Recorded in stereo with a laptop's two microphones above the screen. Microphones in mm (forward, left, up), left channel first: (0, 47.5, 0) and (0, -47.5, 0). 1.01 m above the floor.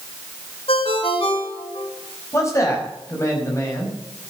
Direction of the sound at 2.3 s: 30° left (ahead or behind).